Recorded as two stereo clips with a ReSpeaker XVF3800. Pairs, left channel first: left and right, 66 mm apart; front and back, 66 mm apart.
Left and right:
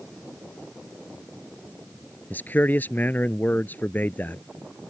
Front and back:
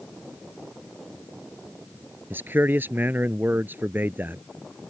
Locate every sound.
2.3 s a man speaking: 140° left